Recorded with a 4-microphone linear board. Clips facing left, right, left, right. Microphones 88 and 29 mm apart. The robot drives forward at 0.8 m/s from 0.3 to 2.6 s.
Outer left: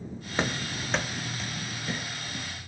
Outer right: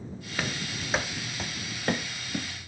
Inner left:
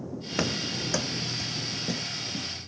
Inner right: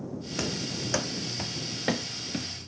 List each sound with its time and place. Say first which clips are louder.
0.4 s running footsteps: outer left 3 dB, inner left 4 dB; 30° left (ahead or behind), 1.0 m; by 2.7 s 80° right, 1.7 m